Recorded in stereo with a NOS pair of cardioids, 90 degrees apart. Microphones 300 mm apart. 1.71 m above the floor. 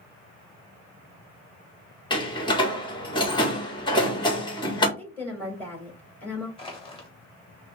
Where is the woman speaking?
5° left, 2.5 m.